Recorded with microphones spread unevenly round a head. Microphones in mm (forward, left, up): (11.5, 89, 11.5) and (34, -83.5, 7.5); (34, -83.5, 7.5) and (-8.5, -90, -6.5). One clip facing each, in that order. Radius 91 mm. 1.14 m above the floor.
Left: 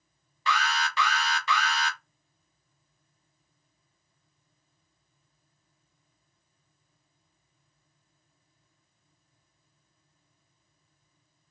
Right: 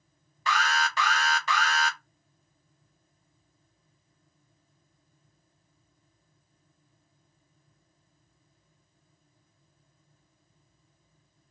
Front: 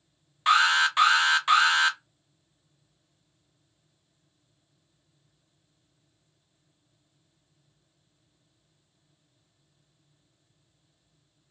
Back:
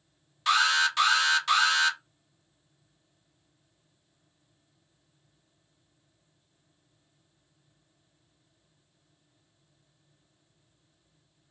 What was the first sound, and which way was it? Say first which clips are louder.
An alarm: right 1 dB, front 3 dB; 70° right.